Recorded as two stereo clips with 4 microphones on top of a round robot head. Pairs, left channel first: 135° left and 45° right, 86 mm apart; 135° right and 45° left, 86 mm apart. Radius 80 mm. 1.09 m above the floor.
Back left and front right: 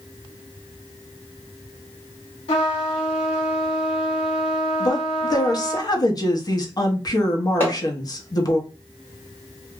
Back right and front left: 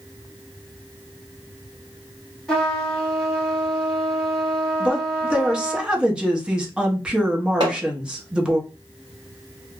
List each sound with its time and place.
2.5 s a trumpet: 135° left, 1.3 m
4.8 s a woman speaking: 120° left, 0.9 m
7.6 s hammering: 75° left, 0.7 m